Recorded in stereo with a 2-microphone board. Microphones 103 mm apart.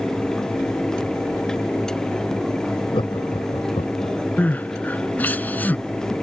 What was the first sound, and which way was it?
Laughter, 55° left (ahead or behind).